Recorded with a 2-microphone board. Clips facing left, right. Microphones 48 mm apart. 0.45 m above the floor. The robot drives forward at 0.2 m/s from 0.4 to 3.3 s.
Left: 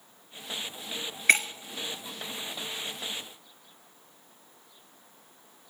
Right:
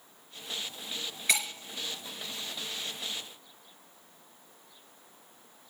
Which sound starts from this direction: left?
Breaking glass, at 1.3 s.